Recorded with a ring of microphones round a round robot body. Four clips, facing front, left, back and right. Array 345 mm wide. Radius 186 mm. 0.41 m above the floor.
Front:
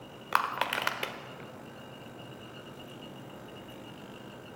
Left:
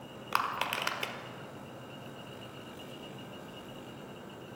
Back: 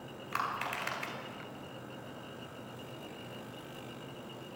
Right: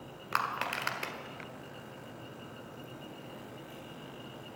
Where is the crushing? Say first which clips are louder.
Left 1 dB, front 6 dB; 10° left, 1.6 m.